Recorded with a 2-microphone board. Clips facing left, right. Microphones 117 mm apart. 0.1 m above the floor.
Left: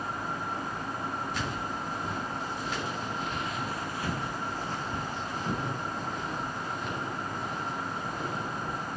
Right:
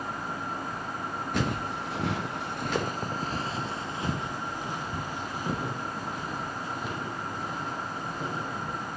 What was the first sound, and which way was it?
Footsteps, 60° right (ahead or behind).